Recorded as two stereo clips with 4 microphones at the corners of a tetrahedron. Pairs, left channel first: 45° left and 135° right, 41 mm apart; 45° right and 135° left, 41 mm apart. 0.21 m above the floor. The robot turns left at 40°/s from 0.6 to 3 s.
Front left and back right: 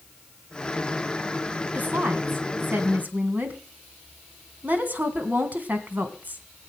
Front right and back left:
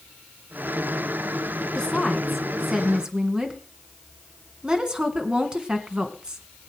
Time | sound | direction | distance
1.8 | a woman speaking | 110° right | 2.5 m